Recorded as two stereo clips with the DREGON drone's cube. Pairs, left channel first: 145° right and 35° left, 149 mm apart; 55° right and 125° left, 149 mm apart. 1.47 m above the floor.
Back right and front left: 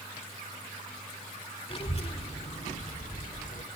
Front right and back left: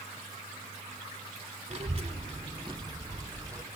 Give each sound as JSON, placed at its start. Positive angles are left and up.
{"t": 1.7, "sound": "a child speaking", "azimuth_deg": 165, "distance_m": 2.5}